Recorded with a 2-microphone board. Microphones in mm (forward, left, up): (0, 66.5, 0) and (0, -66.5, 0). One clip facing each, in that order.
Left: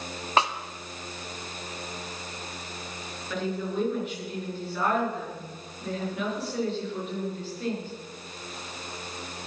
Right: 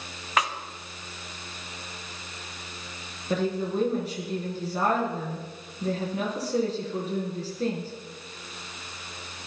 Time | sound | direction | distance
0.4 | a snare drum | 30° left (ahead or behind) | 0.9 m
3.3 | a woman speaking | 35° right (ahead or behind) | 5.5 m